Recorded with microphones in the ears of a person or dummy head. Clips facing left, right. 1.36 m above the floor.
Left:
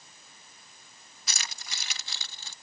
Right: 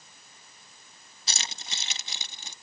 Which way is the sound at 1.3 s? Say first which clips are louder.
Right 2 dB; 25° right (ahead or behind).